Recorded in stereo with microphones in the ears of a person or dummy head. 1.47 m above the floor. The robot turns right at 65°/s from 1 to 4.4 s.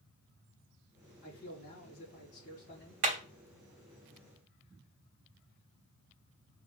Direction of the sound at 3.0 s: 40° right (ahead or behind).